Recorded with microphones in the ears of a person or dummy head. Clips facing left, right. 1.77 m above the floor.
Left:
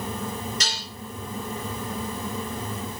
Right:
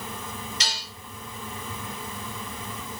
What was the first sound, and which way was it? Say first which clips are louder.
Dishes clattering: left 2 dB; 35° left (ahead or behind).